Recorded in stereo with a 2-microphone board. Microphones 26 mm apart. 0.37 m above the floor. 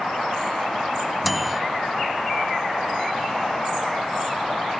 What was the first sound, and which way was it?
A microwave, centre (ahead or behind).